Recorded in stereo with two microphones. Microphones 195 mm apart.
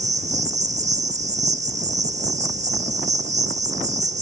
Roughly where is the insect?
Right.